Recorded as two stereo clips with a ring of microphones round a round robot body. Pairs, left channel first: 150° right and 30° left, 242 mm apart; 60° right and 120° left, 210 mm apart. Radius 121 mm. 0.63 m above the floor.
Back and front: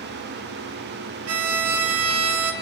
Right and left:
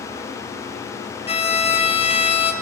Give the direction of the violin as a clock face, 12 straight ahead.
12 o'clock.